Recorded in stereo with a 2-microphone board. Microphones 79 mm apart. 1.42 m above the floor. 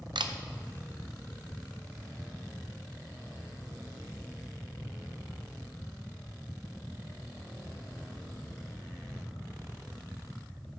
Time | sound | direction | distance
0.1 | a camera shutter | 85° right | 0.6 m